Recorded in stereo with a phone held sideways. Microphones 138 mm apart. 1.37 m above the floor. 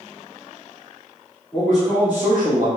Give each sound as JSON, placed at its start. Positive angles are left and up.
{"t": 1.5, "sound": "a man speaking", "side_deg": 5, "distance_m": 1.3}